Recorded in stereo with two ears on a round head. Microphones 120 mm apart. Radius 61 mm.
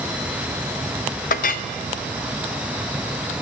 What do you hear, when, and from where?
1.3 s a clink: 60° left (ahead or behind), 0.5 m